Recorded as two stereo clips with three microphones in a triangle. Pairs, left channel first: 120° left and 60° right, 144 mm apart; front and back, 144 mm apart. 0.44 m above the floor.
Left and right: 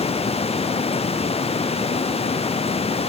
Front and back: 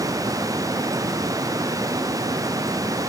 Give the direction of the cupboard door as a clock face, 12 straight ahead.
No cupboard door in this recording.